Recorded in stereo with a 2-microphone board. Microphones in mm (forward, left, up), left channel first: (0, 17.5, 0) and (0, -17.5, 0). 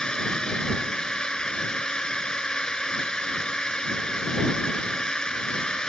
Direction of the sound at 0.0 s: 25° left (ahead or behind).